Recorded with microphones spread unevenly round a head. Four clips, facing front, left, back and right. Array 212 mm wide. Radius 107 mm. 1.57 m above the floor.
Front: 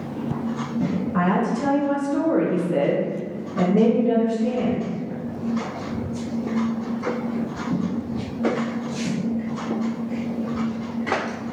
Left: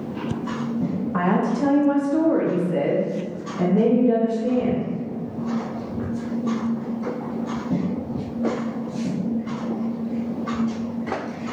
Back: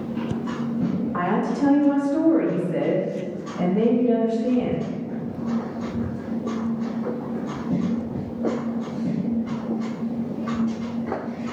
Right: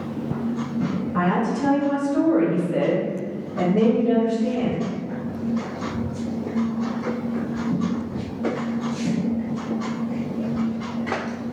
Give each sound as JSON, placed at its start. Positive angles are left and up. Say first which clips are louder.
{"t": 1.1, "sound": "a woman speaking", "louder": "left 1 dB, front 3 dB", "azimuth_deg": 75, "distance_m": 1.1}